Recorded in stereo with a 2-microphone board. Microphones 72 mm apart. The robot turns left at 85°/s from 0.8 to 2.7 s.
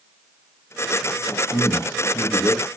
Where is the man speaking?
145° left, 2.0 m; by 2.7 s 45° left, 2.0 m.